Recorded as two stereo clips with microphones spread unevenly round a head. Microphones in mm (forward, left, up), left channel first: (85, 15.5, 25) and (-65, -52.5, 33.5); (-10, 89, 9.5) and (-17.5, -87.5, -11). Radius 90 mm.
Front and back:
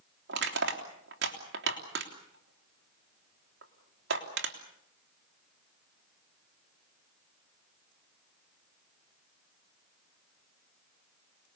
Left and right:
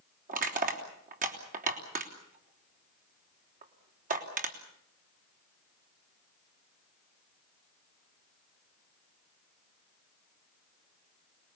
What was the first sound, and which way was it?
Crushing, 135° right.